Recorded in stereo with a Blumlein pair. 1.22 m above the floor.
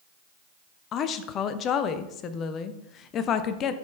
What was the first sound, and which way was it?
A woman speaking, 30° left.